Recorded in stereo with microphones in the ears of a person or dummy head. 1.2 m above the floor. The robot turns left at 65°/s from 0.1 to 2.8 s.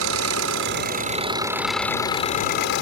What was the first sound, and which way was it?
An engine running, 80° right.